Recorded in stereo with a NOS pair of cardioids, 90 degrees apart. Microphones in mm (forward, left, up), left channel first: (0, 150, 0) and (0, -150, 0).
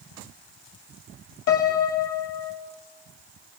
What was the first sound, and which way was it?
A piano, 70° left.